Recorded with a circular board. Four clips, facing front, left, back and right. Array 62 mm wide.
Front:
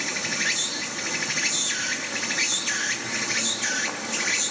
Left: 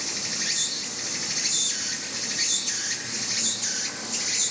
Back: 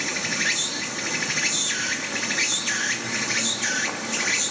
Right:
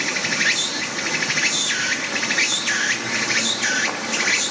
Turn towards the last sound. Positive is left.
turn(degrees=-95)